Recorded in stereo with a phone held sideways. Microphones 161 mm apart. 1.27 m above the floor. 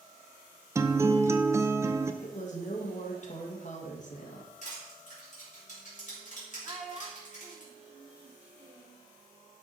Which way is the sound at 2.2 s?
50° left (ahead or behind).